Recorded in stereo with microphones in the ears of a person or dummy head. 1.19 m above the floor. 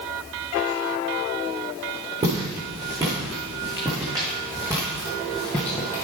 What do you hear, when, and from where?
2.2 s footsteps: 30° right (ahead or behind), 5.5 m; by 6.0 s 20° left (ahead or behind), 1.9 m